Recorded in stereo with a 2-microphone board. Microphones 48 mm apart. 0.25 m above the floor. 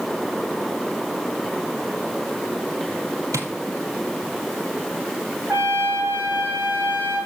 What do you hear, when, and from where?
3.3 s tapping: 85° right, 2 m
5.5 s a trumpet: 45° right (ahead or behind), 5 m